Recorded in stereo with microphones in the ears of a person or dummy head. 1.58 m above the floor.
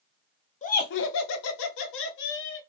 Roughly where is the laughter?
Left.